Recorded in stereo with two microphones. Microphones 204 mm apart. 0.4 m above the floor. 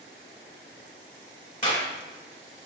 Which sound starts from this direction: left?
A clap, at 1.6 s.